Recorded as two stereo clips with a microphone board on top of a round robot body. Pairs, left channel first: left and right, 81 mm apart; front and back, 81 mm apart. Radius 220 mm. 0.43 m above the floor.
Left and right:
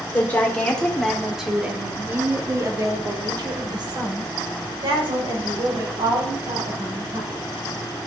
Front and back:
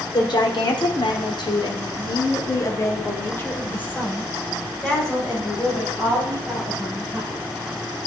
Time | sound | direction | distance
0.1 | a woman speaking | 25° left | 2.5 m